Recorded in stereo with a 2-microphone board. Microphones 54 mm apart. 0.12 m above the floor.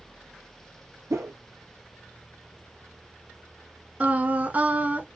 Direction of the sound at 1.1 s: 65° right (ahead or behind).